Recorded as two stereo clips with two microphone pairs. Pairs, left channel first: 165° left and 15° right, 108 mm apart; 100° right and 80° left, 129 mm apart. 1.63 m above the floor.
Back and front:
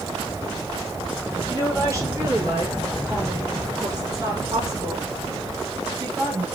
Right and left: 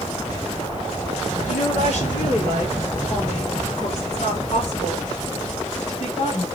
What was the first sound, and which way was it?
A woman speaking, 80° right.